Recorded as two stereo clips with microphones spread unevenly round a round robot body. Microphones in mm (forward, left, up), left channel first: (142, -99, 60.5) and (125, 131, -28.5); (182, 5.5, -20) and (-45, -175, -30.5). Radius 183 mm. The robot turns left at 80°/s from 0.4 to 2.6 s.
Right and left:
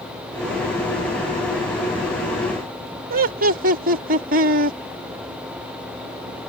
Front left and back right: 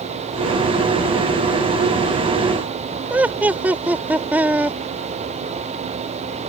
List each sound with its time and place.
3.1 s laughter: 135° left